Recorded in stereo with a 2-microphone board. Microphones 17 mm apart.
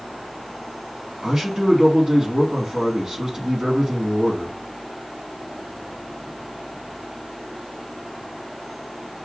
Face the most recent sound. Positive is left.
turn(degrees=-40)  # may be behind; listen again after turning